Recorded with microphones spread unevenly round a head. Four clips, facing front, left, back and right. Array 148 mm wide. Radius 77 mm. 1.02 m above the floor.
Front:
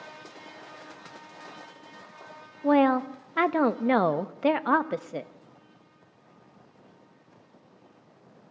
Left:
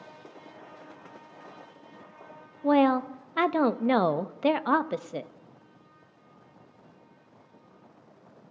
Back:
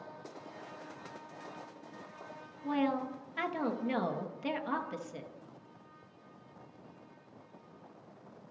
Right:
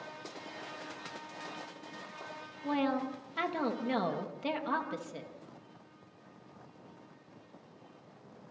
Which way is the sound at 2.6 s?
40° left.